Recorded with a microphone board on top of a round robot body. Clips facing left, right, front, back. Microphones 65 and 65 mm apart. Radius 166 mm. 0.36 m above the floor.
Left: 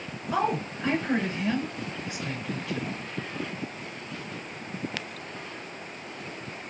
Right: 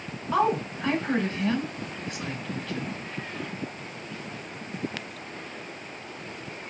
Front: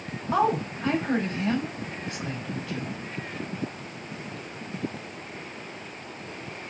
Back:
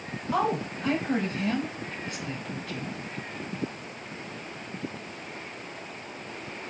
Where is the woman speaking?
10° left, 2.5 m.